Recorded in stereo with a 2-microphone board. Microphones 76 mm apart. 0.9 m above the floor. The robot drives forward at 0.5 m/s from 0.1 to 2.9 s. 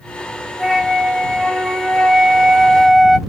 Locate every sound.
0.6 s a flute: centre (ahead or behind), 1.7 m; by 3.2 s 5° left (ahead or behind), 0.5 m